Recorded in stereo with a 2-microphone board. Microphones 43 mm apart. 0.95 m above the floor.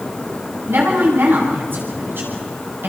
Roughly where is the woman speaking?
Right.